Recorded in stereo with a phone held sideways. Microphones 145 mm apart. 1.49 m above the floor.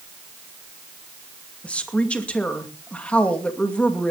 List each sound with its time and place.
1.6 s a woman speaking: 10° left (ahead or behind), 2.5 m